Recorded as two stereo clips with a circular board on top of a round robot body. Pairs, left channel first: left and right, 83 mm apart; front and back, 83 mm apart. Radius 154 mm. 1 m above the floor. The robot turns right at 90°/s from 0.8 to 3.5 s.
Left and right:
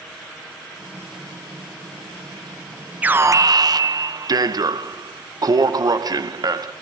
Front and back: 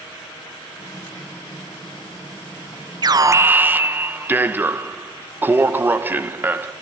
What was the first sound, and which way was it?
An alarm, 160° right.